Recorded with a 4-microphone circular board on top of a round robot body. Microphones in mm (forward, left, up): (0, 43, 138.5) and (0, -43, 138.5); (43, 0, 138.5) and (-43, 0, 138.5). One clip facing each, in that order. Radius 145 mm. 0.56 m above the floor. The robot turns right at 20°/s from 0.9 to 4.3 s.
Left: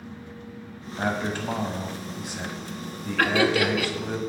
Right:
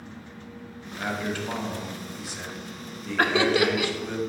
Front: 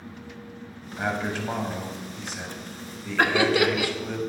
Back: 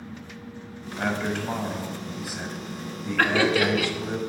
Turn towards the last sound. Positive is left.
turn(degrees=-40)